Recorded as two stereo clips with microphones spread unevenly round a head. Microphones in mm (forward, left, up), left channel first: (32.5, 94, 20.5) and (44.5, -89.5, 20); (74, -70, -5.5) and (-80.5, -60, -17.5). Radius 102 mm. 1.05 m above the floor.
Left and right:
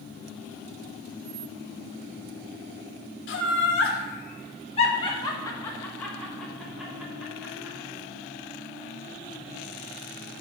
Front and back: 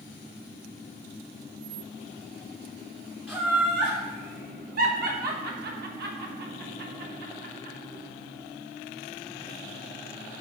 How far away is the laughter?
About 1.0 m.